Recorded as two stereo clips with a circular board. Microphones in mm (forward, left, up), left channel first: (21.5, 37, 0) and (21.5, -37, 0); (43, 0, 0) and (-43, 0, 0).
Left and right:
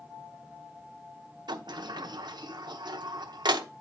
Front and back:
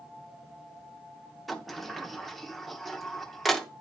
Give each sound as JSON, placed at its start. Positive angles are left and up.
{"t": 1.5, "sound": "a sliding door", "azimuth_deg": -90, "distance_m": 0.8}